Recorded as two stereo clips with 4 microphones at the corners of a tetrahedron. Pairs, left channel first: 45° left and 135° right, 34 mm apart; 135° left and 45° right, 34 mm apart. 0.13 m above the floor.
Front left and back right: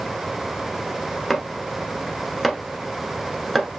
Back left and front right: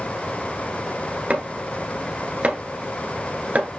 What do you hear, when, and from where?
1.3 s chopping: 40° right, 1.1 m